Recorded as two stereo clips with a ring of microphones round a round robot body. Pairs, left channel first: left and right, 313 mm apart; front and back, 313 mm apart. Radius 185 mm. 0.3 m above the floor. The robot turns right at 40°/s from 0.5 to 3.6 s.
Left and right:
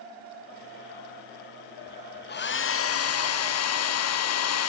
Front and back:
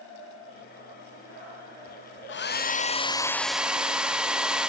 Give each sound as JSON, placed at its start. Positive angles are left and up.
{"t": 2.3, "sound": "a hair dryer", "azimuth_deg": 40, "distance_m": 1.0}